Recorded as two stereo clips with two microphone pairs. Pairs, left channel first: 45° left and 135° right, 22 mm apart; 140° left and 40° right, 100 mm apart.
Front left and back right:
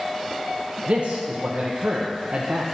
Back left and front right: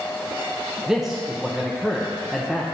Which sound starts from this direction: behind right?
A man speaking, at 0.9 s.